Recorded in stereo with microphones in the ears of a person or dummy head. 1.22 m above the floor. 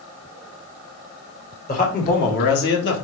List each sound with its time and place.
1.7 s a man speaking: 45° left (ahead or behind), 1.7 m; by 3.0 s 65° left (ahead or behind), 1.4 m